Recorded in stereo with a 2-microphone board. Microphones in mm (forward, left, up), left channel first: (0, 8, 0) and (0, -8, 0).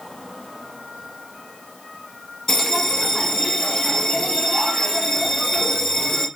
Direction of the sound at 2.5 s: 25° left (ahead or behind).